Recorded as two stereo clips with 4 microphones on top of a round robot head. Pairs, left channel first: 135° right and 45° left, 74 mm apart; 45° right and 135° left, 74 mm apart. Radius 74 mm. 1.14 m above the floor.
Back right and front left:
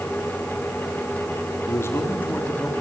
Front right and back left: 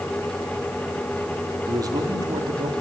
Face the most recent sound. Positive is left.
turn(degrees=150)